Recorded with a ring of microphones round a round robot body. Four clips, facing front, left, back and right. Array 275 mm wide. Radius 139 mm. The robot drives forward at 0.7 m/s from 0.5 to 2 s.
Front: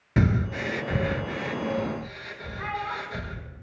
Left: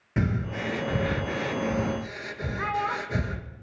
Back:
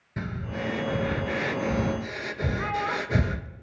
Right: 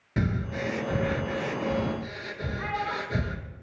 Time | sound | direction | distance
0.2 | breathing | 5° left | 0.6 m
2.6 | a child speaking | 110° left | 1.1 m